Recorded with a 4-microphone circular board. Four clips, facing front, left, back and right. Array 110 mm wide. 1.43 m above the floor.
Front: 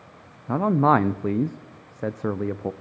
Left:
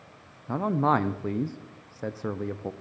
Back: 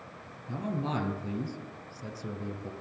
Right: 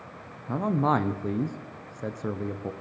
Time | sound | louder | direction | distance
0.5 | a man speaking | left 1 dB, front 14 dB | 5° left | 0.5 m